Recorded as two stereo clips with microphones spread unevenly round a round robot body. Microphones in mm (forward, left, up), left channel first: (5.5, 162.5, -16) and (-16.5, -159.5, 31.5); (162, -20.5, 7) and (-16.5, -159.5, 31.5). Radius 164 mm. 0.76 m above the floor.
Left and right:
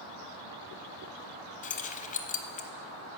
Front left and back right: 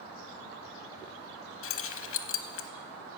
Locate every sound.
1.6 s keys jangling: 25° left, 0.7 m